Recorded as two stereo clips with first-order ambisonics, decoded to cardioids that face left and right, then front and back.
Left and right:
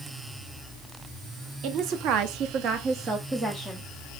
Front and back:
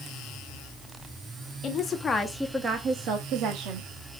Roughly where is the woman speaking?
Ahead right.